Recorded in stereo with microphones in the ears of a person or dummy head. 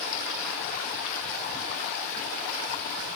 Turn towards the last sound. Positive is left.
No sound to turn to.